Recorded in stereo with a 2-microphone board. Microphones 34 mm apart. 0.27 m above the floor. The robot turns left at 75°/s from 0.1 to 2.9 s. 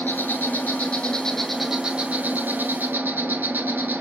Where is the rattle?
I don't hear a rattle.